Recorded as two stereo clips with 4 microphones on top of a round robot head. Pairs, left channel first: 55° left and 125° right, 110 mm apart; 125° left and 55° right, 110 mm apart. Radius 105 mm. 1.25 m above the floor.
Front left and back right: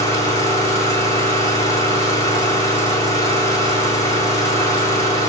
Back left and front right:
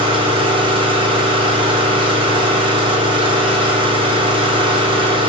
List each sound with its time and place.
0.0 s an engine running: 5° right, 3 m